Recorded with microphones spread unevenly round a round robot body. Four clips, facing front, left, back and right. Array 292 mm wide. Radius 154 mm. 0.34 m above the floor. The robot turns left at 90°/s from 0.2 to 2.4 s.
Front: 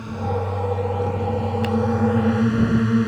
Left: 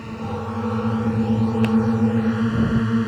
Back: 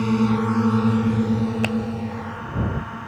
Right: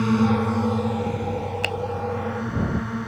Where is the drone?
135° right; by 3.1 s 35° left.